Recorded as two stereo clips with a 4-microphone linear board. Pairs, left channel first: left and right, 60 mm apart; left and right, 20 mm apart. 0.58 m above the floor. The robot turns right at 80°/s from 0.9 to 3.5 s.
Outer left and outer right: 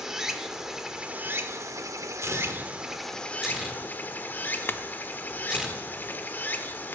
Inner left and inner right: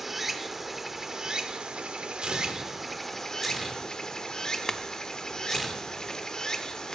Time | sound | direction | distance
0.0 | running water | 170° right | 0.8 m
2.2 | tearing paper | 55° right (ahead or behind) | 1.1 m
4.7 | a clink | 40° left (ahead or behind) | 0.5 m